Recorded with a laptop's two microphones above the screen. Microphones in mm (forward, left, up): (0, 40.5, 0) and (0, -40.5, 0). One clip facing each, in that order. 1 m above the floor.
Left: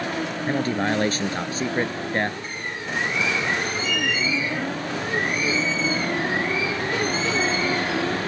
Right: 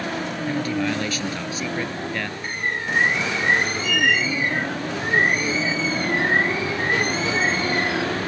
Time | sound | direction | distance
0.5 | a man speaking | 40° left (ahead or behind) | ?
2.4 | a bird | 65° right (ahead or behind) | ?